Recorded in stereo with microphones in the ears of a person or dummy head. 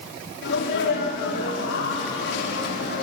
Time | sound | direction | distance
0.4 | a sneeze | 75° left (ahead or behind) | 5.5 m